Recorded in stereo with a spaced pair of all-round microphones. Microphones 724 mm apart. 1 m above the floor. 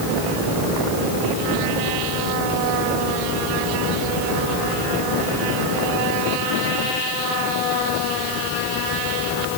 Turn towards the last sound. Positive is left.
No sound to turn to.